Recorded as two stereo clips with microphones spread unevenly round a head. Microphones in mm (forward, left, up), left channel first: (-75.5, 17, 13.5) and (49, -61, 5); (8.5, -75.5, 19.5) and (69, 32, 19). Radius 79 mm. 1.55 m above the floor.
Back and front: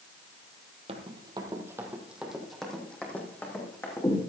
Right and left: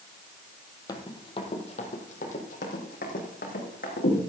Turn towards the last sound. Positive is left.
turn(degrees=-140)